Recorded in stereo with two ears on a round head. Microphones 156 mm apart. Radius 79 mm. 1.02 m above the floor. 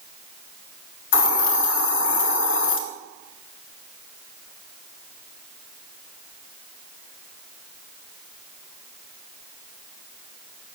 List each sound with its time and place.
1.1 s a hiss: 90° left, 1.7 m